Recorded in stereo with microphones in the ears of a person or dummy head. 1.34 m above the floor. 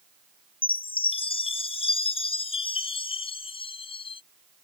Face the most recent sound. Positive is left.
turn(degrees=25)  # may be behind; listen again after turning